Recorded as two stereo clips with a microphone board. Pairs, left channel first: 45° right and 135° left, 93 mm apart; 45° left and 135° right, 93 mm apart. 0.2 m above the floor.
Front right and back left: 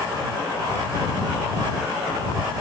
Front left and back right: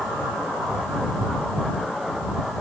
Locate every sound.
Only background noise.